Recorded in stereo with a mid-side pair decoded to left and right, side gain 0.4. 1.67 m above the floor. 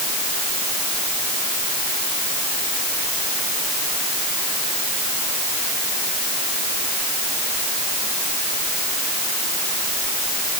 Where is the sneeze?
No sneeze in this recording.